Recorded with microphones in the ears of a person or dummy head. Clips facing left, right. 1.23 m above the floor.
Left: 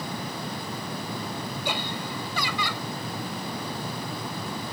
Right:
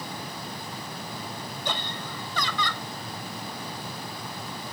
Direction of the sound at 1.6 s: 5° left (ahead or behind).